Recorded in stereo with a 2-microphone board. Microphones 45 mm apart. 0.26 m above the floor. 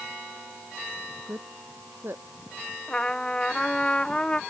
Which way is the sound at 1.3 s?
55° right (ahead or behind).